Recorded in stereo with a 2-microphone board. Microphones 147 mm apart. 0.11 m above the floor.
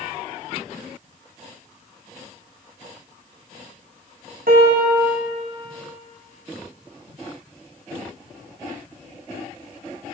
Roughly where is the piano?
Right.